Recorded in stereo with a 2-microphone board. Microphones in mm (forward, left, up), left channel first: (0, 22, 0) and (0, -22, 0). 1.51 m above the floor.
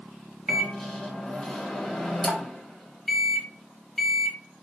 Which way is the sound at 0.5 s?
Centre (ahead or behind).